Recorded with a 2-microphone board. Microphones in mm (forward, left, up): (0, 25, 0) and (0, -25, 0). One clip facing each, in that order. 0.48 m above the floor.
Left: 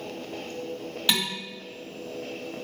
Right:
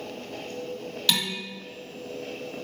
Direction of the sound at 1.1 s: 15° left (ahead or behind).